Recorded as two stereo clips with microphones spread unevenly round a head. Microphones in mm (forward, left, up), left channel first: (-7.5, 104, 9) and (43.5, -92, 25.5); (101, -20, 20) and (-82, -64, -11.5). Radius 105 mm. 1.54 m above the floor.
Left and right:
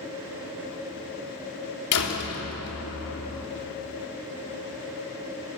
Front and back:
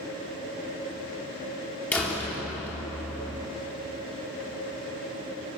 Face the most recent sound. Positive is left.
turn(degrees=95)